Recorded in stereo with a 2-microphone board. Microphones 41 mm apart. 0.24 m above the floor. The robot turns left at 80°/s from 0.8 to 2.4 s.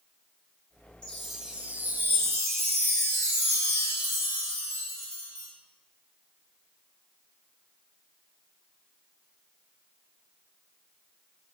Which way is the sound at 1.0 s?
20° left.